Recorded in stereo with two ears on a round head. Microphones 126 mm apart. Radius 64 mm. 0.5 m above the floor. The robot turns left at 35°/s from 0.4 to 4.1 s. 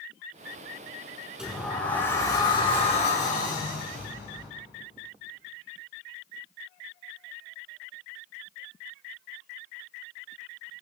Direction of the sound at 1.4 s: 175° right.